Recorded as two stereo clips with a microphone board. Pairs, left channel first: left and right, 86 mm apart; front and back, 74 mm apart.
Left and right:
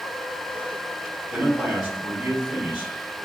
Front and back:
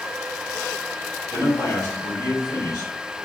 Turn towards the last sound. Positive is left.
turn(degrees=-15)